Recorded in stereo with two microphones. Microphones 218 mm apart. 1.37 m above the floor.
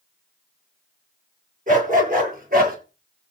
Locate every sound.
1.7 s a dog barking: 40° right (ahead or behind), 9 m; by 2.8 s 45° right (ahead or behind), 8.5 m